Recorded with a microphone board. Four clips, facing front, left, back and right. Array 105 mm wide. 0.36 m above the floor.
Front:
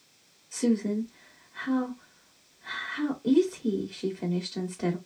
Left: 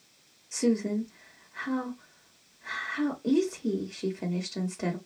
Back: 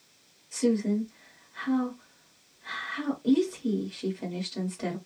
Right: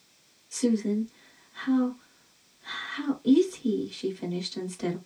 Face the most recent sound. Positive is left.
turn(degrees=90)